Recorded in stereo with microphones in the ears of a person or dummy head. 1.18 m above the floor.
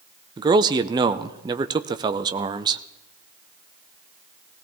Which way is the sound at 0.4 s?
25° right (ahead or behind).